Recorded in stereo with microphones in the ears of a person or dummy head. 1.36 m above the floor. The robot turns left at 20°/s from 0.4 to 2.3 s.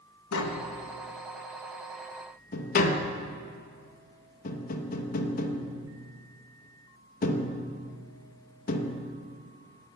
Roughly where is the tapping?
Left.